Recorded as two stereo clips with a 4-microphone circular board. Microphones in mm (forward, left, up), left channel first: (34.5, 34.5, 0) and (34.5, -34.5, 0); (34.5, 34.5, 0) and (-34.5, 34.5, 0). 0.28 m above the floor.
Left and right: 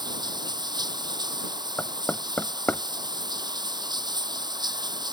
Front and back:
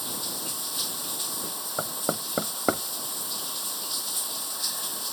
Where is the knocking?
140° left.